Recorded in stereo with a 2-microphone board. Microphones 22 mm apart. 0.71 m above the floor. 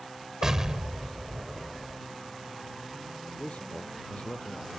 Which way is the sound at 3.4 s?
85° left.